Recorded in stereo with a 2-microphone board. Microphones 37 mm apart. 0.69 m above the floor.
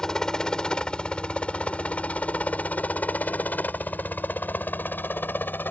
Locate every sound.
0.0 s a helicopter: 20° left (ahead or behind); by 5.7 s 65° left (ahead or behind)